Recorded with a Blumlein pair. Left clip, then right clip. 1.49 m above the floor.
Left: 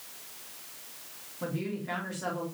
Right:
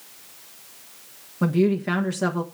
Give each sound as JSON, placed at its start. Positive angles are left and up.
{"t": 1.4, "sound": "a woman speaking", "azimuth_deg": -55, "distance_m": 1.3}